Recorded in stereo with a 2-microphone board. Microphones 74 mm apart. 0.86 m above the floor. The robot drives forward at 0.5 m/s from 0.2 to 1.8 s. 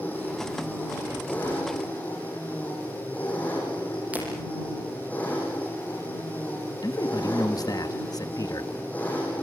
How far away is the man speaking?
About 1.3 m.